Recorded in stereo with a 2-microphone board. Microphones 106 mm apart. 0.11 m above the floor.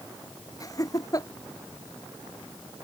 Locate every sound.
0.6 s laughter: 35° left (ahead or behind)